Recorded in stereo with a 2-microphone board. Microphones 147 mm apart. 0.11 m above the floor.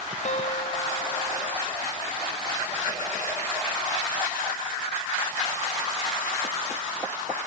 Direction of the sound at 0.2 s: 55° left (ahead or behind).